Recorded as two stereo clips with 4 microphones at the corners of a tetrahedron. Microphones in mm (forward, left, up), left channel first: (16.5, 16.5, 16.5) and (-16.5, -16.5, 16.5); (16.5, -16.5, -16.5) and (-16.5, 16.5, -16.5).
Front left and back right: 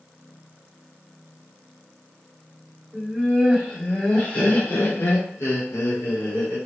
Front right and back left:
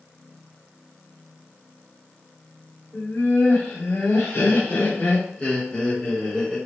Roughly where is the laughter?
Ahead right.